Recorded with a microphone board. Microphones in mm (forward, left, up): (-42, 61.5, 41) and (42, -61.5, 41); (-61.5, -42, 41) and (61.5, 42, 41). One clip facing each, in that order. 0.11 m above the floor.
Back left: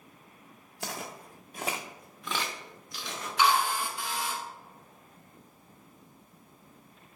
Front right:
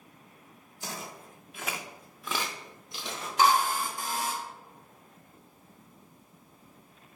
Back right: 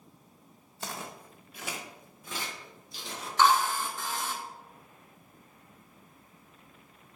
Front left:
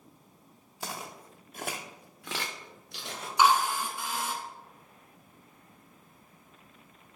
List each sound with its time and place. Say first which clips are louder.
0.8 s footsteps: back left 2 dB, even; 120° left, 0.9 m; by 3.3 s 5° left, 1.5 m
3.4 s a drill: front right 2 dB, even; 40° right, 0.6 m